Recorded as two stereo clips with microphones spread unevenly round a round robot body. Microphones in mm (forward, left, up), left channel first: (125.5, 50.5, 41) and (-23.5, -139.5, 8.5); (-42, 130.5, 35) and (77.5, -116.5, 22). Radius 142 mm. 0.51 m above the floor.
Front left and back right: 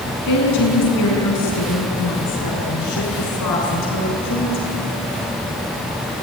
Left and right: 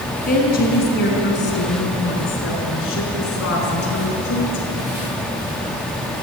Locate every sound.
0.3 s a woman speaking: 55° left, 5 m; by 4.9 s 80° left, 7 m